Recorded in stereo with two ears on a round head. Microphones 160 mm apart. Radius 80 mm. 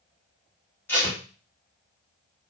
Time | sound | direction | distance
0.9 | tape being pulled | 15° left (ahead or behind) | 1.4 m